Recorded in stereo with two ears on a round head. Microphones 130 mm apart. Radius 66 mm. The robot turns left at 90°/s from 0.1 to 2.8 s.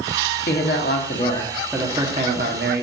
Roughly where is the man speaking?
Left.